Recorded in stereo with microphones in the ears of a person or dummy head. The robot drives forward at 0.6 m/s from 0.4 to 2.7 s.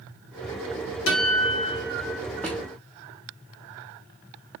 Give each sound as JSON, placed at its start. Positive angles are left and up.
{"t": 1.1, "sound": "a guitar", "side_deg": 65, "distance_m": 2.5}
{"t": 2.4, "sound": "a drawer", "side_deg": 5, "distance_m": 0.6}